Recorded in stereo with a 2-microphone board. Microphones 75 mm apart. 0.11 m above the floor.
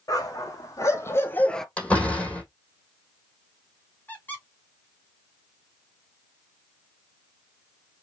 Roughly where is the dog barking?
Left.